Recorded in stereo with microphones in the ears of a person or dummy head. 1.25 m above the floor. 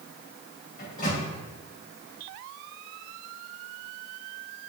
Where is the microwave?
55° left (ahead or behind), 4 m.